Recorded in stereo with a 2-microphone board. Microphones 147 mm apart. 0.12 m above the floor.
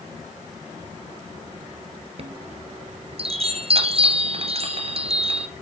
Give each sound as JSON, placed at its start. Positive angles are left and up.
{"t": 2.2, "sound": "a chime", "side_deg": -45, "distance_m": 1.5}